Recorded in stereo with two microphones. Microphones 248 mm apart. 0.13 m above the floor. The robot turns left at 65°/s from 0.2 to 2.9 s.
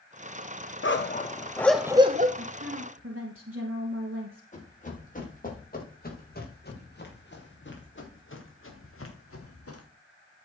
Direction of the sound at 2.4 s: 55° right.